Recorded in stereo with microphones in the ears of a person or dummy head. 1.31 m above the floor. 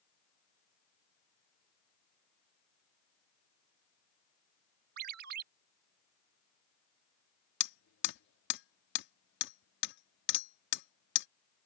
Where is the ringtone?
50° right (ahead or behind).